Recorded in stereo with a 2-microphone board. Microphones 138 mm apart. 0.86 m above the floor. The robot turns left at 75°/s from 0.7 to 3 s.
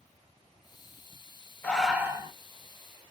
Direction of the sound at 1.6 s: 15° left.